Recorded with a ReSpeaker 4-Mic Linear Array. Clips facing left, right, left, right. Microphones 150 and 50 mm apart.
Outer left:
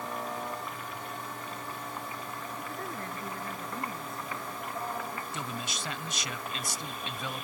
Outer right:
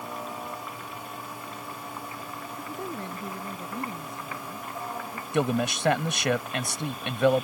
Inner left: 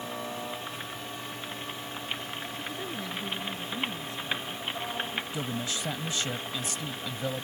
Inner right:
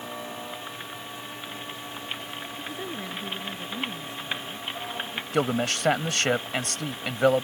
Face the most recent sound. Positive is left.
turn(degrees=-70)  # may be behind; listen again after turning